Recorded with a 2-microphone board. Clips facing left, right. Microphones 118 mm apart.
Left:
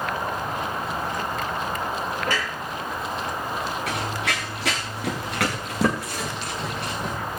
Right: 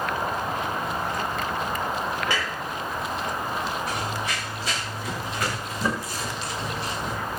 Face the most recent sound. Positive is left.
turn(degrees=55)  # may be behind; listen again after turning